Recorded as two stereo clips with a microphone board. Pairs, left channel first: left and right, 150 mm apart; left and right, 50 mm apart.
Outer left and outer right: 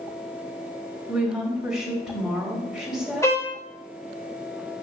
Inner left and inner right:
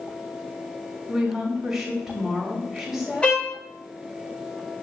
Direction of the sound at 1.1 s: 5° right (ahead or behind).